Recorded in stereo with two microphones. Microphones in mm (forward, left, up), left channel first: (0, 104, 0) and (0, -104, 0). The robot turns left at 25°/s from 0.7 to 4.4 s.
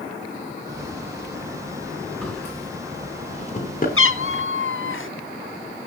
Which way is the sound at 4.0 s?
80° left.